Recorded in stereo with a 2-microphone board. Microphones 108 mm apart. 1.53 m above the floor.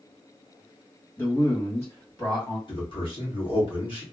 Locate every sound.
1.2 s a man speaking: 20° left (ahead or behind), 1.9 m; by 2.6 s 45° left (ahead or behind), 1.7 m
2.7 s a man speaking: 50° left (ahead or behind), 1.7 m